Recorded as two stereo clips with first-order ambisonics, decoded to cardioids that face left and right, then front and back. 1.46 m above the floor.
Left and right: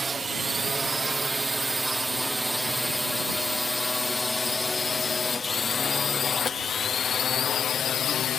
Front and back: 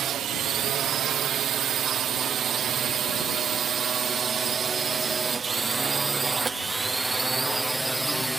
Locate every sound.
0.0 s a drone: 155° right; by 8.4 s 95° left